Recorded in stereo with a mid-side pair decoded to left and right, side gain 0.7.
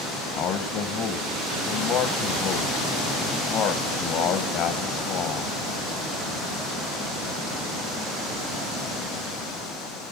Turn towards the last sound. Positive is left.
turn(degrees=50)